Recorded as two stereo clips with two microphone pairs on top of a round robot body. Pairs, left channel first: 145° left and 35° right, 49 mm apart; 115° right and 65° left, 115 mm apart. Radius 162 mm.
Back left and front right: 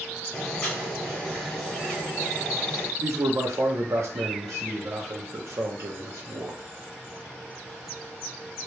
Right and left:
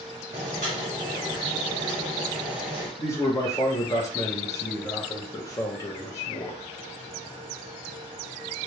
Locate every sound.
0.3 s boiling: 75° left, 0.9 m
3.0 s a man speaking: 55° right, 0.8 m